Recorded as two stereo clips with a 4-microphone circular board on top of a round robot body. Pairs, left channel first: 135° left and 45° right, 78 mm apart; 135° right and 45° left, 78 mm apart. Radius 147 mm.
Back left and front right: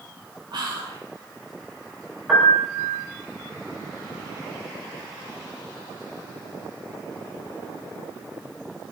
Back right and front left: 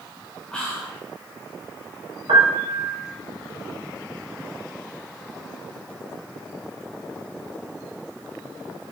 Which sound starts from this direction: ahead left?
A piano, at 2.3 s.